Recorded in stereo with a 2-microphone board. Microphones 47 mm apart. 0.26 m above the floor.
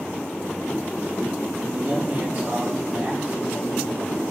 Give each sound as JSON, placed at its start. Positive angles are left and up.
{"t": 1.6, "sound": "a man speaking", "side_deg": -45, "distance_m": 8.0}